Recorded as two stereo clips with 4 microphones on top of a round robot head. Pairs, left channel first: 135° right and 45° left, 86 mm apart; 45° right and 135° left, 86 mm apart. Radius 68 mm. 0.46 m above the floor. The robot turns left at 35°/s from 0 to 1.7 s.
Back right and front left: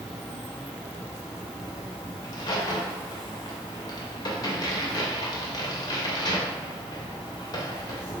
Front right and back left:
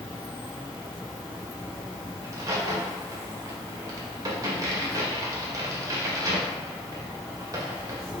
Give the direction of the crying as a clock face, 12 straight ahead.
No crying in this recording.